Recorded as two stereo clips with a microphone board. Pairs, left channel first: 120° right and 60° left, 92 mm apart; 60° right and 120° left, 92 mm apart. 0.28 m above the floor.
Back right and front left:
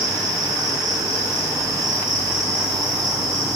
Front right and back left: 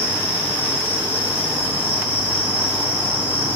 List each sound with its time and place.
0.0 s an insect: 55° right, 1.6 m